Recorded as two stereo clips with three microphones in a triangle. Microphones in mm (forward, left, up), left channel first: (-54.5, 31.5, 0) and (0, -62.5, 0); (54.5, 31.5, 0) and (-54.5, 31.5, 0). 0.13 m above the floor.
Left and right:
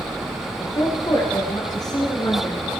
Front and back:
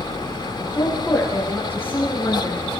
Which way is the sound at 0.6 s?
70° left.